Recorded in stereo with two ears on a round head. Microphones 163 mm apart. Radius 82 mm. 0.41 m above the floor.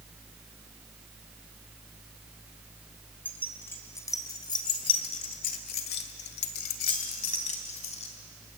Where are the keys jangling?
10° left (ahead or behind), 3.5 m; by 8.1 s 35° left (ahead or behind), 3 m.